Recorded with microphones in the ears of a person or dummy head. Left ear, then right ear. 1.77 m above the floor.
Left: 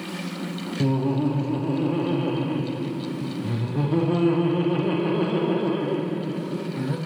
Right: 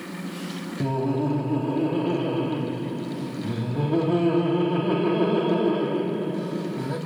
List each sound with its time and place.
0.8 s laughter: 35° left (ahead or behind), 1.0 m